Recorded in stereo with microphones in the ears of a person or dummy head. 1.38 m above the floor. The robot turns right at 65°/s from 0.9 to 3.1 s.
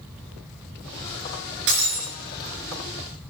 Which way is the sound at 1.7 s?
70° right (ahead or behind).